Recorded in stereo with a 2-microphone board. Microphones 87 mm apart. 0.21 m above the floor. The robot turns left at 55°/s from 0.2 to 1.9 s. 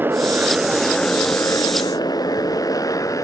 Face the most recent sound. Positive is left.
turn(degrees=40)  # may be behind; listen again after turning